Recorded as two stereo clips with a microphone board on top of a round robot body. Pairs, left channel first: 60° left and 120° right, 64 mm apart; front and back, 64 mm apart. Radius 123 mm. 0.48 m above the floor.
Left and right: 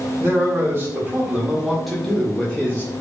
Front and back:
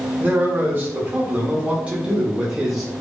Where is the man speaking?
140° right, 1.5 m; by 2.9 s 95° left, 1.2 m.